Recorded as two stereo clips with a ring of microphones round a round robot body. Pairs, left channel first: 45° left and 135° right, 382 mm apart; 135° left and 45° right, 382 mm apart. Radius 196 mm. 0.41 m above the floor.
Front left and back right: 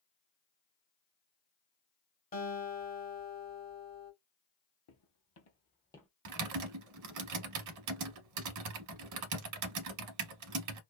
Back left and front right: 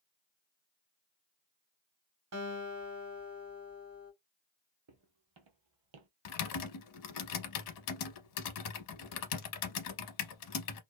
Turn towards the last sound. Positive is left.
turn(degrees=175)